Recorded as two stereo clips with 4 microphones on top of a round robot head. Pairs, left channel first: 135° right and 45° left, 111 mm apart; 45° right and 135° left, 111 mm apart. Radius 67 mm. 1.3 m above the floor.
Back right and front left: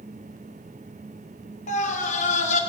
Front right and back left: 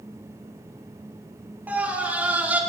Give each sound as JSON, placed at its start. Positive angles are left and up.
{"t": 1.7, "sound": "a scream", "azimuth_deg": -150, "distance_m": 3.0}